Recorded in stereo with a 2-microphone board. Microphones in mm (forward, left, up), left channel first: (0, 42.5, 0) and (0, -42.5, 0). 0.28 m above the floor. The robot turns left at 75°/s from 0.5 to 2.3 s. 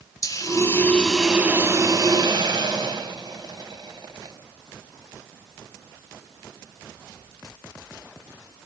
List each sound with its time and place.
0.2 s a hiss: 50° left, 1.2 m; by 4.3 s 85° right, 1.2 m